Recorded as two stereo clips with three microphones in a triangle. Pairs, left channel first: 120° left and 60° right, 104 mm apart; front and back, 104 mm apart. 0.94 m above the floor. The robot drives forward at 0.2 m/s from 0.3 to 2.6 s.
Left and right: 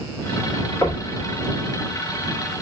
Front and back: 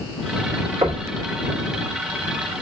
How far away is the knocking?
About 1.6 m.